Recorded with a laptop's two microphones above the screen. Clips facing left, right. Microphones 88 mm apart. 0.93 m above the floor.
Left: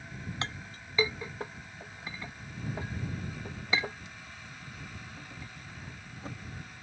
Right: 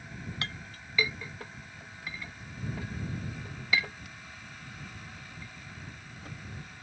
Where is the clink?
25° left (ahead or behind).